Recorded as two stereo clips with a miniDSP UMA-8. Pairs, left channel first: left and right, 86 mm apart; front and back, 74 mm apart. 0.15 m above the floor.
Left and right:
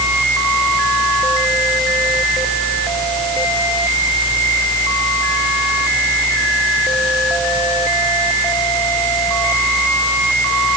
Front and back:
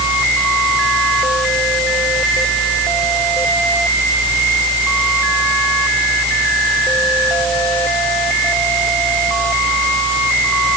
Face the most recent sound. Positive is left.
No sound to turn to.